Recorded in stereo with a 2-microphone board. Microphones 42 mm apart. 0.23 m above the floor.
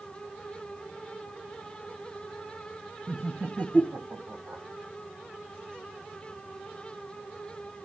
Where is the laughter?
20° right (ahead or behind), 1.0 m; by 4.6 s 55° right (ahead or behind), 1.7 m.